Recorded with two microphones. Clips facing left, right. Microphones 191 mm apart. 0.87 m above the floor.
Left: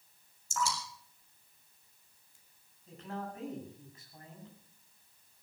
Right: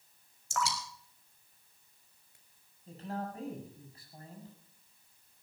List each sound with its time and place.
0.5 s dripping: 70° right (ahead or behind), 5 m
2.9 s a man speaking: 35° right (ahead or behind), 7.5 m